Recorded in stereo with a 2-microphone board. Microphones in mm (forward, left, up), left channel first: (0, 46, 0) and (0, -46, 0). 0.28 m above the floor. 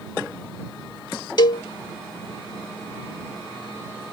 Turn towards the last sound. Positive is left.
turn(degrees=50)  # may be behind; listen again after turning